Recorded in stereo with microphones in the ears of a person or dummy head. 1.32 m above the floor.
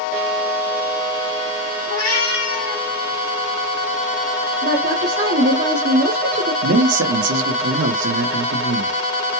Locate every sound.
1.9 s a cat meowing: 70° left (ahead or behind), 2 m; by 2.9 s 55° left (ahead or behind), 2.0 m
4.6 s a woman speaking: 45° right (ahead or behind), 0.9 m
6.6 s a man speaking: 65° right (ahead or behind), 1.0 m